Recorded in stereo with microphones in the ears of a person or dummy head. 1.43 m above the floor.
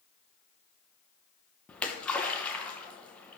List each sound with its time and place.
1.7 s a splash: centre (ahead or behind), 0.7 m